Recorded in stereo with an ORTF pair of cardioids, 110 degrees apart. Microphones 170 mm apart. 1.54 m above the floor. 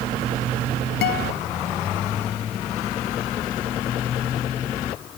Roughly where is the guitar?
Left.